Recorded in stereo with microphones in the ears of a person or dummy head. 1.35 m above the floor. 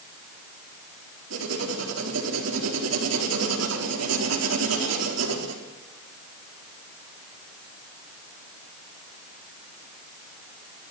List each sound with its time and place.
1.3 s writing: 85° right, 4 m